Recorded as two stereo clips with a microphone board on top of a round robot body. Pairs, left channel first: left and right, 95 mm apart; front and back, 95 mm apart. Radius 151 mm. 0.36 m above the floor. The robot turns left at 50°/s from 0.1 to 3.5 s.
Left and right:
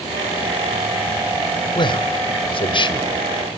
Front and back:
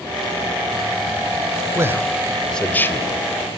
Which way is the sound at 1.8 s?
120° left.